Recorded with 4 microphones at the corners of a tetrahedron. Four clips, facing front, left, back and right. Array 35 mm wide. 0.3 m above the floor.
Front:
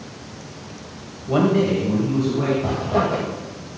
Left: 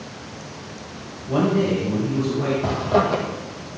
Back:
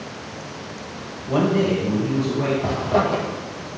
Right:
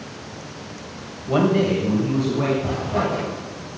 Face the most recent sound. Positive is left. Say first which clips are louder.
# left 3 dB, back 1 dB
turn(degrees=115)